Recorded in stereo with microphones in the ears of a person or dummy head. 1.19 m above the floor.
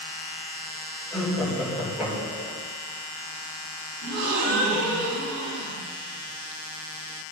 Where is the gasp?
80° right, 4.5 m.